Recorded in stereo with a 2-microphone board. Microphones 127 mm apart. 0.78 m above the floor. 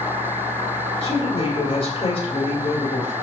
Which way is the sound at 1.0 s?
50° left (ahead or behind).